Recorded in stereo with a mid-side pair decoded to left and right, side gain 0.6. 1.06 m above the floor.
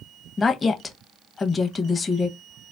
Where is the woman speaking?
20° left, 0.8 m.